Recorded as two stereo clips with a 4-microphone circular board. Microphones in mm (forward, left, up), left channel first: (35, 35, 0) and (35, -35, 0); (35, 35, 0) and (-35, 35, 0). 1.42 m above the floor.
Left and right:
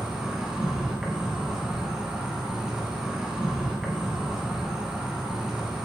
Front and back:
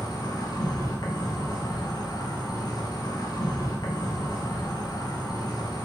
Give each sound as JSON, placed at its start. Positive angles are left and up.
{"t": 0.0, "sound": "an insect", "azimuth_deg": -10, "distance_m": 2.0}